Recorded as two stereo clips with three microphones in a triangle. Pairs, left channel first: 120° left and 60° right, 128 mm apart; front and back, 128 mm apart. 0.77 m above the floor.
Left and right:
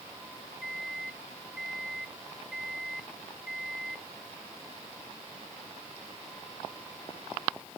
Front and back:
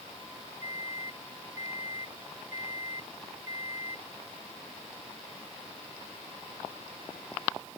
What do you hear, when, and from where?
0.6 s a microwave: 25° left